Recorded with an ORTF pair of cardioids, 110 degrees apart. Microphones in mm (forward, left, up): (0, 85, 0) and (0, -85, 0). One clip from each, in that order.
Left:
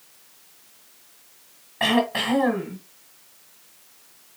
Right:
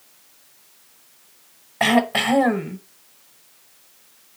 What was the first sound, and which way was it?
Throat clearing, 30° right.